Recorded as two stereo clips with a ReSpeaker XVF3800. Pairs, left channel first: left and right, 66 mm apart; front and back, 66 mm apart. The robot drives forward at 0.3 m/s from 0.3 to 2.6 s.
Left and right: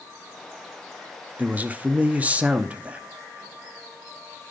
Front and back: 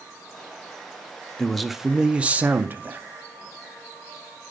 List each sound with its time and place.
1.4 s a man speaking: 75° right, 0.5 m; by 3.0 s 145° right, 0.6 m